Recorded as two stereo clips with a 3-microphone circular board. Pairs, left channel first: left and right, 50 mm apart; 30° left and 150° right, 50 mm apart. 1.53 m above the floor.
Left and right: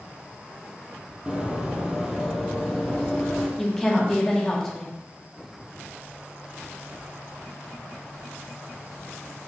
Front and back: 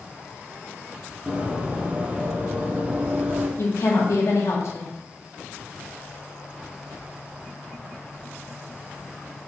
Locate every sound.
1.3 s running footsteps: 125° right, 1.6 m; by 3.5 s 170° left, 2.0 m
3.6 s a woman speaking: 5° left, 1.9 m